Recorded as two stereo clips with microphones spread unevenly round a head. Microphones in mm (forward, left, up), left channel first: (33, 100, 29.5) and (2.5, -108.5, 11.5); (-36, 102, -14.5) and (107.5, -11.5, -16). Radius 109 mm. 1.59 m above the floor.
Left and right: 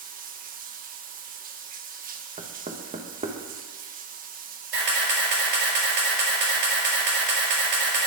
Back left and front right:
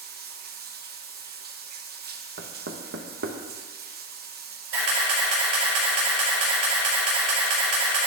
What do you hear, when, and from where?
0.0 s running water: 50° right, 1.0 m
2.4 s knocking: 40° right, 1.2 m
4.7 s a camera shutter: 60° right, 5 m